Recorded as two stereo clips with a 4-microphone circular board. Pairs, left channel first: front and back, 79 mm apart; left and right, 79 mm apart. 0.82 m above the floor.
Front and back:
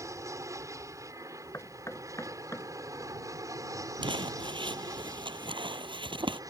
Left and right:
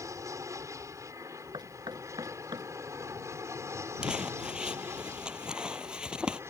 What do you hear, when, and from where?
0.0 s an aircraft: 135° right; by 6.5 s 140° right
1.5 s knocking: 55° right
4.0 s crumpling: 170° right